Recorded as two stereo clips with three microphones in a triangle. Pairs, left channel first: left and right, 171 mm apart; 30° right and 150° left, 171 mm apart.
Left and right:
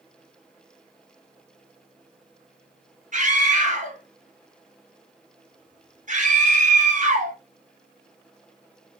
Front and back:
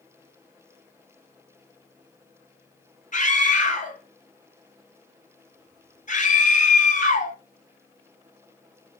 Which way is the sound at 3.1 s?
60° right.